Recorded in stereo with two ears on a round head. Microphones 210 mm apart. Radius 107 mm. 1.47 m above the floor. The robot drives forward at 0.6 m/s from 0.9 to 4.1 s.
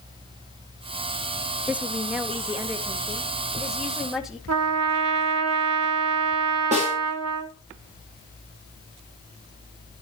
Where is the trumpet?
70° right (ahead or behind), 1.4 m.